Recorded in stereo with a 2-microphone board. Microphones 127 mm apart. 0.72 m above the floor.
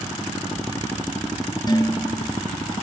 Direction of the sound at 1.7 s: 30° left (ahead or behind).